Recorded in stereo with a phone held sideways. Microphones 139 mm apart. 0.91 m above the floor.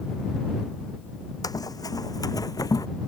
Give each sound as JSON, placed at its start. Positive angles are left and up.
{"t": 1.4, "sound": "running footsteps", "side_deg": 25}